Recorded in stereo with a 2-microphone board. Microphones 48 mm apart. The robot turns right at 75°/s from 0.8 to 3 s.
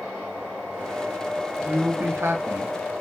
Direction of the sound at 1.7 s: 150° right.